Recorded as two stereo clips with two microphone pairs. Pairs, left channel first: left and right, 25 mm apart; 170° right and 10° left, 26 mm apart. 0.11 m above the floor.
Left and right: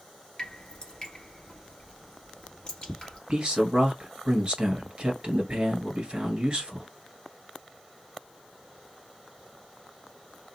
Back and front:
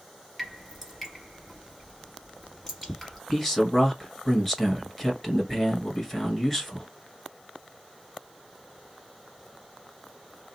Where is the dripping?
120° left, 1.7 m.